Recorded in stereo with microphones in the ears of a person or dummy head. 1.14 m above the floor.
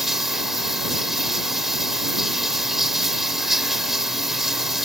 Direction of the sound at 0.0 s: 5° right (ahead or behind).